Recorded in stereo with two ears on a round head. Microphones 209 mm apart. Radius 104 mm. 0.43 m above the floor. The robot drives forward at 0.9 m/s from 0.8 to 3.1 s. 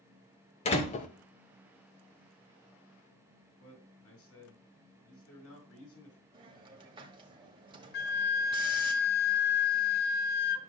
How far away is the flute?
About 0.6 m.